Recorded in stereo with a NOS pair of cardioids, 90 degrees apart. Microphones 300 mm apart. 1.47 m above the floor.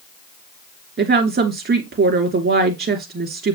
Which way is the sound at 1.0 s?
40° right.